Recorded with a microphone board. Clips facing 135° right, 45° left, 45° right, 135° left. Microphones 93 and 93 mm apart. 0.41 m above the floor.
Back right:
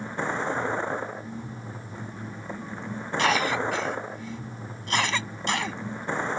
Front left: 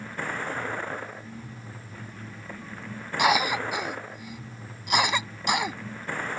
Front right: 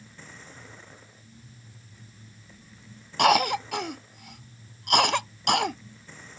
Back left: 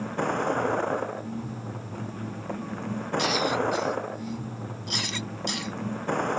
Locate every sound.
0.0 s a vehicle: 155° left
3.2 s a cough: 30° right